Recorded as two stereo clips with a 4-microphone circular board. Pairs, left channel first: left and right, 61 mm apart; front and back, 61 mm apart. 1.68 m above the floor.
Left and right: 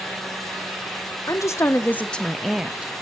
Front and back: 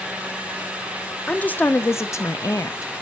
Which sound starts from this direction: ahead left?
A woman speaking, at 1.3 s.